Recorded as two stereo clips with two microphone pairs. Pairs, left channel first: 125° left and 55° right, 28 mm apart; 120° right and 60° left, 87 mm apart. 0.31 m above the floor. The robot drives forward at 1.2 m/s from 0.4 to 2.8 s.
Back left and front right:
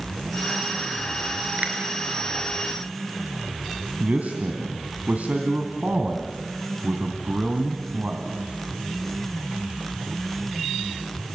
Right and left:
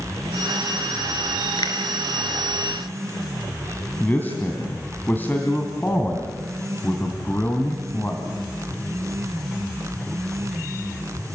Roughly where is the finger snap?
Right.